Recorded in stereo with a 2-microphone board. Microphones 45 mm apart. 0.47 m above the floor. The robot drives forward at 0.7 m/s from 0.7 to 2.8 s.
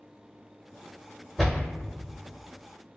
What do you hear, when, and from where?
1.4 s a door slam: 5° right (ahead or behind), 1.2 m